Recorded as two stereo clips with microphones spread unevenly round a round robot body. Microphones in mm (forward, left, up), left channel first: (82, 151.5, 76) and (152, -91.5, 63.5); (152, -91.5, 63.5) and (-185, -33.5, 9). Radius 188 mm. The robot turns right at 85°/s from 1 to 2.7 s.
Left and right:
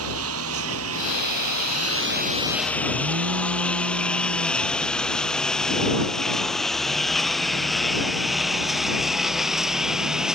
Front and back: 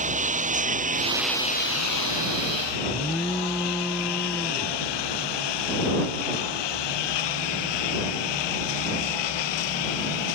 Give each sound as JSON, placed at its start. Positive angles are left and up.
{"t": 0.0, "sound": "a lawn mower", "azimuth_deg": -120}
{"t": 2.9, "sound": "an alarm", "azimuth_deg": -100}